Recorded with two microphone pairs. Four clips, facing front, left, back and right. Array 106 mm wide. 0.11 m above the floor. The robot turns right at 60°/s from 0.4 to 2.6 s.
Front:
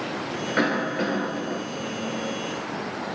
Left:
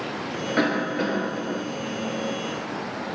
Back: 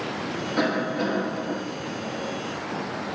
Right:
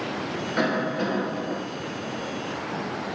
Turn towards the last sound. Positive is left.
turn(degrees=145)